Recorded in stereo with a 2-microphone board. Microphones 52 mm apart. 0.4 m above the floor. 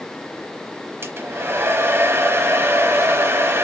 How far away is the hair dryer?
About 0.8 m.